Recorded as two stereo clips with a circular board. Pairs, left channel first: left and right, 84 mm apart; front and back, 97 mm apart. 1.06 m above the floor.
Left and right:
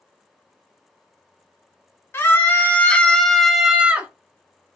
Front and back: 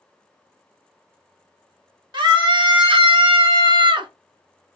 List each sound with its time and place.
2.1 s a scream: 145° left, 1.2 m; by 4.1 s 155° right, 0.8 m